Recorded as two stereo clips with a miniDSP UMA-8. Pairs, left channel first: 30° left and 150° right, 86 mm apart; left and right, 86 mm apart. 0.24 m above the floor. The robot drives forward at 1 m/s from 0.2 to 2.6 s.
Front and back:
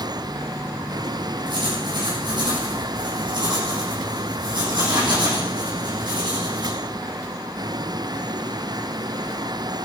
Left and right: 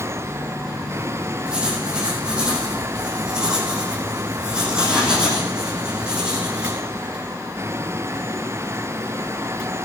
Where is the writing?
170° right, 5.5 m.